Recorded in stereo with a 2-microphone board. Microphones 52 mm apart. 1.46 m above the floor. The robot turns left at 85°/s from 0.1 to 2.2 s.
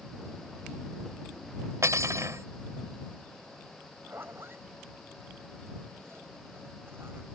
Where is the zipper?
50° right (ahead or behind).